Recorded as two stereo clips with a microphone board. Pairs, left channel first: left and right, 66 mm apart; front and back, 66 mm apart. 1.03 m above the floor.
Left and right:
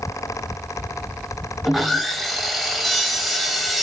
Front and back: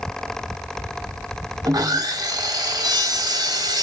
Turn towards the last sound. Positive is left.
turn(degrees=-175)